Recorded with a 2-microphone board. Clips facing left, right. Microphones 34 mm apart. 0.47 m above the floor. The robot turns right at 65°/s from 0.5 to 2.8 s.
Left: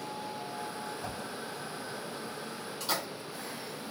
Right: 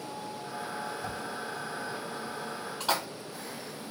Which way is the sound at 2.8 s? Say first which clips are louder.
Right 4 dB; 75° right (ahead or behind).